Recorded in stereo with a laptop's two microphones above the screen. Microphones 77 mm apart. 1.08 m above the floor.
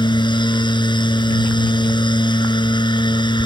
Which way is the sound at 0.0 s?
85° left.